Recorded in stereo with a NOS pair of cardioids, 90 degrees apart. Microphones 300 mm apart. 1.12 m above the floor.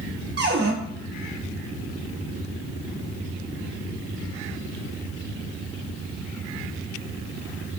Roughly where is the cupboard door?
Ahead right.